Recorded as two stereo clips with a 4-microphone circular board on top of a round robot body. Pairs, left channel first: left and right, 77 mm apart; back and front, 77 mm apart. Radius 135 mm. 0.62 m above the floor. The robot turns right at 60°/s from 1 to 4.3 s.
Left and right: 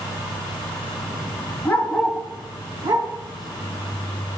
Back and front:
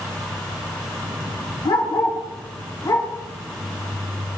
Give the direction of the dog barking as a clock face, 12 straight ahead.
7 o'clock.